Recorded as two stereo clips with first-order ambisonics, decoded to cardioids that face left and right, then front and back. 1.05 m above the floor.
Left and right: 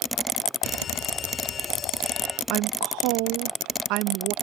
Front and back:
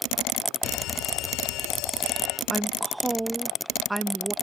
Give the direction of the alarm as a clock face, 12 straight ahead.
11 o'clock.